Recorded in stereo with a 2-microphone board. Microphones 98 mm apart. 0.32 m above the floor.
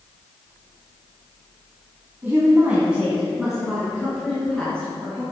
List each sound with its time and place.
2.2 s a woman speaking: 25° right (ahead or behind), 2.5 m; by 5.2 s 15° left (ahead or behind), 4 m